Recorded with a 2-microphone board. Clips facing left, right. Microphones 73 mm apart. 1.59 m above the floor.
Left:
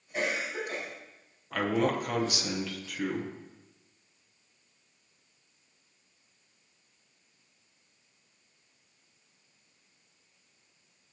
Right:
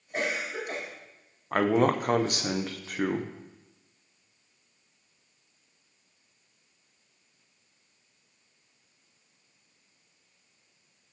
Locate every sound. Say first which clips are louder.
0.1 s a cough: right 1 dB; 60° right (ahead or behind), 4 m
1.5 s a man speaking: right 5 dB; 45° right (ahead or behind), 0.7 m